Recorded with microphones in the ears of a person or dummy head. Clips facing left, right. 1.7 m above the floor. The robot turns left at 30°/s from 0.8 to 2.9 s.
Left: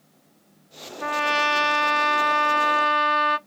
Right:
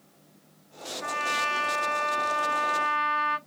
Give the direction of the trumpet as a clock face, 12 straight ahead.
8 o'clock.